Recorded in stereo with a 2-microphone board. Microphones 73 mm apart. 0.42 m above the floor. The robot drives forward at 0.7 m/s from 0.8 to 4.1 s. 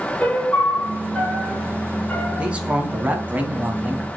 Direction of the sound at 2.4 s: 15° right (ahead or behind).